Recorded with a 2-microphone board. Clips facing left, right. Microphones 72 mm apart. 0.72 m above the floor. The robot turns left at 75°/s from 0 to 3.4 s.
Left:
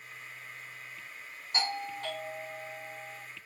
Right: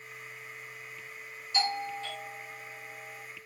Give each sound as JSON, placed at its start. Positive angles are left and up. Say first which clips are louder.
{"t": 1.5, "sound": "a doorbell", "louder": "right 3 dB", "azimuth_deg": 125, "distance_m": 2.0}